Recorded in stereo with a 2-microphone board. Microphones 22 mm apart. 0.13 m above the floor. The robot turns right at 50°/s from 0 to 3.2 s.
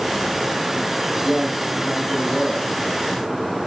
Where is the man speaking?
5° right, 5.5 m; by 3.3 s 95° left, 5.5 m.